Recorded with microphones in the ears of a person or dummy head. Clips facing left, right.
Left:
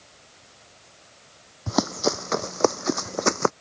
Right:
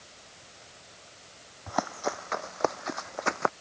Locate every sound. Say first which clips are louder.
1.7 s running footsteps: left 7 dB; 65° left (ahead or behind); by 3.5 s 75° left (ahead or behind)